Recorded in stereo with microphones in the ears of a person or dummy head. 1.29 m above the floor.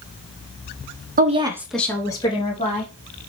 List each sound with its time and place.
1.2 s a woman speaking: 35° right (ahead or behind), 0.5 m; by 2.9 s 35° left (ahead or behind), 1.4 m